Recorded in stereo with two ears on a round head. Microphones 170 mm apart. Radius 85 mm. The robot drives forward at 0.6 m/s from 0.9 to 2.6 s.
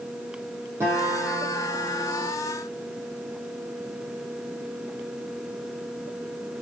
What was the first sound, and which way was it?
A guitar, 10° right (ahead or behind).